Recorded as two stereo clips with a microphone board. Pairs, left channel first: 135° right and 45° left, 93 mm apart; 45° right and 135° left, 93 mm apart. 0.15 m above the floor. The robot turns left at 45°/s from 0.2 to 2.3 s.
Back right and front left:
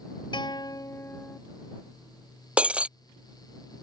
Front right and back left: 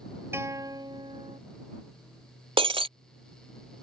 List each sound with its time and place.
0.3 s a guitar: 160° right; by 1.4 s 150° left
2.6 s breaking glass: 120° left